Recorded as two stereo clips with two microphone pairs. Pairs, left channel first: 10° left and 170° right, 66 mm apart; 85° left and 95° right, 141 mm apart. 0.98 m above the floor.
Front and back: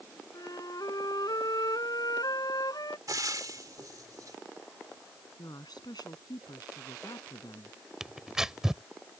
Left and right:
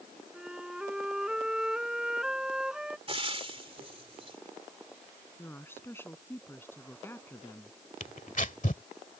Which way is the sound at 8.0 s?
110° left.